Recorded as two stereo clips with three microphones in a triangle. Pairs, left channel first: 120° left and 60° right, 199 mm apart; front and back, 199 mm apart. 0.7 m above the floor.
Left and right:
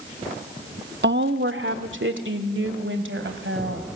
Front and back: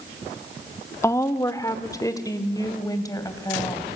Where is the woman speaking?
75° right, 0.9 m; by 4.0 s 70° right, 4 m.